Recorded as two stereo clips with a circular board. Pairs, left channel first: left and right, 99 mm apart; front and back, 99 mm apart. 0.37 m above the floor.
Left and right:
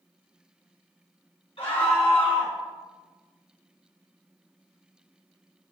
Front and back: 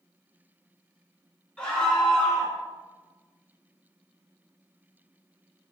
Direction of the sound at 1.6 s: 80° left.